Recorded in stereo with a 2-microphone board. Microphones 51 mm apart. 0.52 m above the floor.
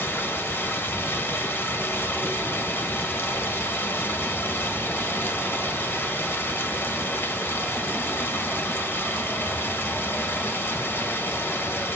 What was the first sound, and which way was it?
Running water, 40° left (ahead or behind).